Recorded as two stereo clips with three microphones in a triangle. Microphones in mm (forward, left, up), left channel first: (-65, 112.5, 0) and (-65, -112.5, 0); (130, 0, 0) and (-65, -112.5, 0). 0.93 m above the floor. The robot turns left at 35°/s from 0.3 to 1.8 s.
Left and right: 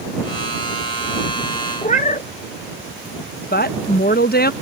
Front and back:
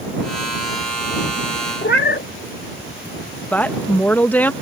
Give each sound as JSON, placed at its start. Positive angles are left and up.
{"t": 1.8, "sound": "a cat meowing", "azimuth_deg": 45}
{"t": 3.5, "sound": "a woman speaking", "azimuth_deg": 110}